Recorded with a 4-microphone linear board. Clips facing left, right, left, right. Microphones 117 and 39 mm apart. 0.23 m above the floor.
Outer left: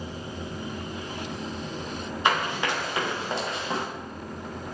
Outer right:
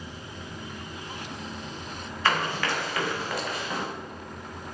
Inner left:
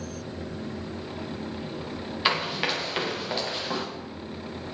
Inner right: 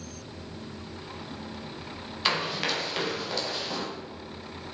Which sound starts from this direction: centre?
Running footsteps, at 2.2 s.